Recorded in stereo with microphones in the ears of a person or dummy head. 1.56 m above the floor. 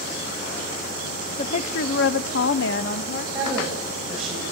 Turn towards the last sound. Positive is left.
turn(degrees=-5)  # may be behind; listen again after turning